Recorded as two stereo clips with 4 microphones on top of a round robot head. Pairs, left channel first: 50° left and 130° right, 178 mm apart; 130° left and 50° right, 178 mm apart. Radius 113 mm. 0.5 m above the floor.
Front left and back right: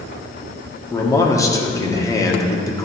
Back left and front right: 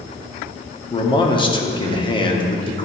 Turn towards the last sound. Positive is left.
turn(degrees=105)